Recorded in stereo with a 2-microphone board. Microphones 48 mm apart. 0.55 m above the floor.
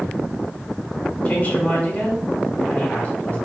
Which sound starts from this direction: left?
A woman speaking, at 1.2 s.